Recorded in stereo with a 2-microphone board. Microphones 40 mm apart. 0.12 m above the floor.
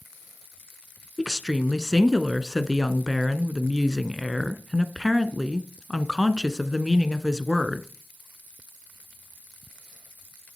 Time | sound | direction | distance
1.2 | a woman speaking | 10° right (ahead or behind) | 1.1 m